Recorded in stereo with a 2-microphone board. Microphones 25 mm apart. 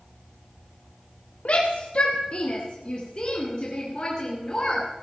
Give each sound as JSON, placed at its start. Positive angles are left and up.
{"t": 1.4, "sound": "a shout", "side_deg": 55, "distance_m": 1.3}